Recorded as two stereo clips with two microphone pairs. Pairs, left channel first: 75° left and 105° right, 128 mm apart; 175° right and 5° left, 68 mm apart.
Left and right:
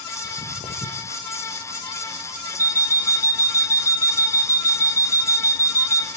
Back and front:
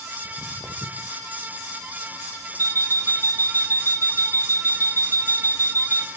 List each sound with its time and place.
0.2 s footsteps: 95° right, 4 m
2.6 s an alarm clock: 135° left, 1.4 m